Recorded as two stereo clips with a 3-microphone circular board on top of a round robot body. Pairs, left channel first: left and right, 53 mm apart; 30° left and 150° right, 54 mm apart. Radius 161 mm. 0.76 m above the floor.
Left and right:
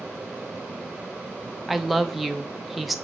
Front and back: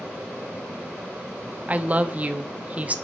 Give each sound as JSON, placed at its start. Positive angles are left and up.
{"t": 1.7, "sound": "a woman speaking", "azimuth_deg": -175, "distance_m": 0.9}